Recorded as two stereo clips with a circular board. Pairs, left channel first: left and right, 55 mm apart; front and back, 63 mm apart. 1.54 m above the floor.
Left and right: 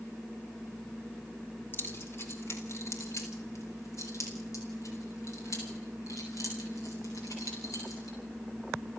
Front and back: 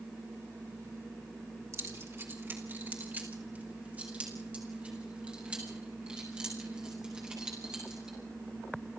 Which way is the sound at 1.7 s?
140° left.